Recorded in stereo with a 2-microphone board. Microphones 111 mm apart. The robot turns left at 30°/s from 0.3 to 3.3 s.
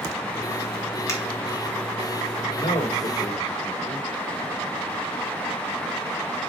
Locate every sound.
1.1 s a finger snap: 25° left (ahead or behind), 2 m; by 1.2 s 30° left (ahead or behind), 2 m
2.5 s a man speaking: 85° left, 2.5 m; by 4.1 s 65° left (ahead or behind), 2.5 m